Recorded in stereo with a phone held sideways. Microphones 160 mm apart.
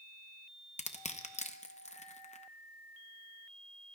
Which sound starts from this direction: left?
Crushing, at 0.8 s.